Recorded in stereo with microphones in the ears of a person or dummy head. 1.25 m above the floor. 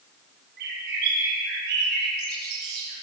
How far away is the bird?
About 4.5 m.